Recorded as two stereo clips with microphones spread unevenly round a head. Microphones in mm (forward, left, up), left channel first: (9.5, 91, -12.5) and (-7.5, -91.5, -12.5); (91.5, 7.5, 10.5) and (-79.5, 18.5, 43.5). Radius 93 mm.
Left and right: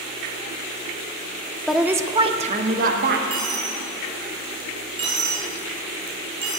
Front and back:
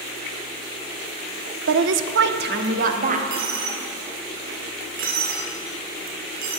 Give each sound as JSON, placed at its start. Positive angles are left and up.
{"t": 1.7, "sound": "a woman speaking", "azimuth_deg": 170, "distance_m": 0.8}
{"t": 3.3, "sound": "a dropped coin", "azimuth_deg": -160, "distance_m": 3.5}